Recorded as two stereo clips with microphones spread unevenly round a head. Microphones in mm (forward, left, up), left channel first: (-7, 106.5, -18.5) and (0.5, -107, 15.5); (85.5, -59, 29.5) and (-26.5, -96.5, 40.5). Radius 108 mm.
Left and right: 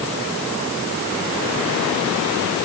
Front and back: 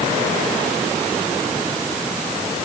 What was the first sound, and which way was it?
Only background noise.